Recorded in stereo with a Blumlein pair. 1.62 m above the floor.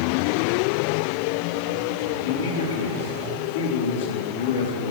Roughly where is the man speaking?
Ahead left.